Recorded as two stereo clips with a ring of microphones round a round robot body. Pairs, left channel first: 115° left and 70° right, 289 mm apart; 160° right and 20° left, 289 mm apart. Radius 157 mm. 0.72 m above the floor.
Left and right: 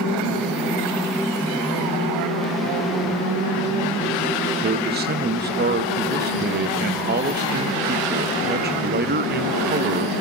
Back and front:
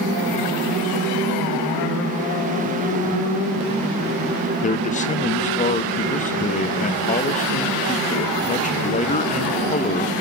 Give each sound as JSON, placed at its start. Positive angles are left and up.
{"t": 4.6, "sound": "a man speaking", "azimuth_deg": -105, "distance_m": 0.8}